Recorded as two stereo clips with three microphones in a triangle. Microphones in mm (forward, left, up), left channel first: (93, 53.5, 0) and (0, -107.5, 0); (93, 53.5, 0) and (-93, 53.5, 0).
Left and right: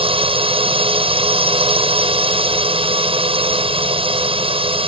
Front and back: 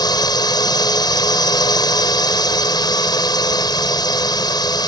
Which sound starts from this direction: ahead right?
A drone, at 0.0 s.